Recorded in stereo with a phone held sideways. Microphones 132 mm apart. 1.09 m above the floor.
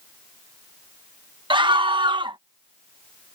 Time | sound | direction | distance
1.5 | a scream | 40° right (ahead or behind) | ?